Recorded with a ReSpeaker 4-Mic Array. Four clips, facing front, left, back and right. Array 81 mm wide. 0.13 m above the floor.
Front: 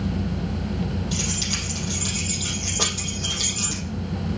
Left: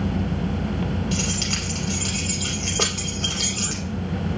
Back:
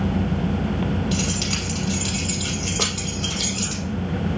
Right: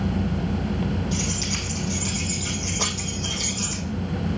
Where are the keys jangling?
115° left, 2.5 m.